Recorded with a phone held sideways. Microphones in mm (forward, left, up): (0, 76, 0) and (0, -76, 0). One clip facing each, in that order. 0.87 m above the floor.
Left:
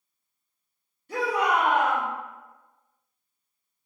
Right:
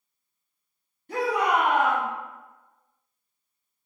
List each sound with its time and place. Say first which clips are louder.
1.1 s a shout: right 1 dB; 50° right (ahead or behind), 1.8 m